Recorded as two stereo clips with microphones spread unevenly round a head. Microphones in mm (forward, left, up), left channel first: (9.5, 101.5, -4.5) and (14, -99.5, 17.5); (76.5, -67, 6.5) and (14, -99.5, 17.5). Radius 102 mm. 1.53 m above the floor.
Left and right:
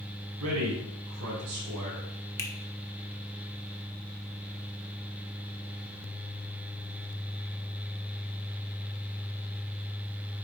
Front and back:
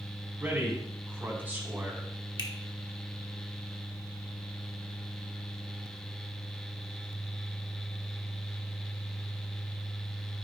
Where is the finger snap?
10° left, 1.4 m.